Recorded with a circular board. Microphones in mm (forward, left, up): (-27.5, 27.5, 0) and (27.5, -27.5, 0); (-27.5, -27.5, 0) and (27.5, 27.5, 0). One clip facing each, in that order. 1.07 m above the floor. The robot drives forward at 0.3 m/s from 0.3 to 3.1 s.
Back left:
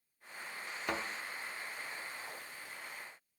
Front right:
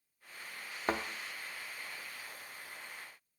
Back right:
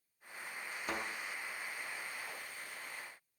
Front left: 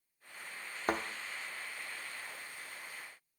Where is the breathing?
I don't hear breathing.